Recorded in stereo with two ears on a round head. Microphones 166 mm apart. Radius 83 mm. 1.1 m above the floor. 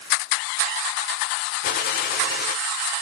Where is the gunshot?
50° left (ahead or behind), 1.1 m.